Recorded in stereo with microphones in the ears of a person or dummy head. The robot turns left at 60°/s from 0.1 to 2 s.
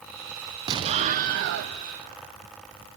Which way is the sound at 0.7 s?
25° right.